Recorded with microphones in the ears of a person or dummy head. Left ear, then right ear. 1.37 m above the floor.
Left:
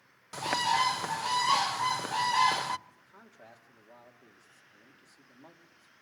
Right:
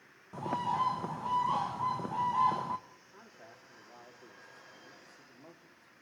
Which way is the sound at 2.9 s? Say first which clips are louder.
Right 1 dB; 15° left (ahead or behind).